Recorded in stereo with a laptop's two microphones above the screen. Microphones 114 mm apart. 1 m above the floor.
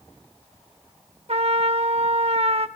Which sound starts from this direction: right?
A trumpet, at 1.3 s.